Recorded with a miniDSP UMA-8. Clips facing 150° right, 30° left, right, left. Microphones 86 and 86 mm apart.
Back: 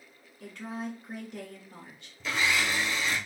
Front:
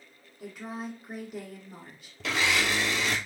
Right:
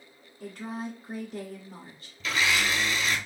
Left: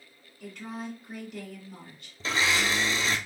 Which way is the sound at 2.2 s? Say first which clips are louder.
Front 1 dB, even; 35° left.